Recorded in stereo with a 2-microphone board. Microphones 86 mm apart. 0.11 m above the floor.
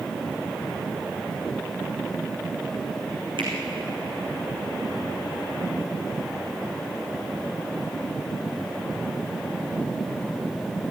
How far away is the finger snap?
About 5.5 m.